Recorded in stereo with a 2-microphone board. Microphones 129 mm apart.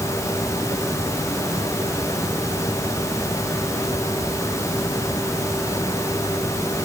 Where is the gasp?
I don't hear a gasp.